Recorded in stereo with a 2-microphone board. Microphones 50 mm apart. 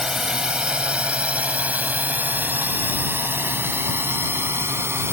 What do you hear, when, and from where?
0.0 s a drone: 10° right (ahead or behind); by 5.1 s 55° right (ahead or behind)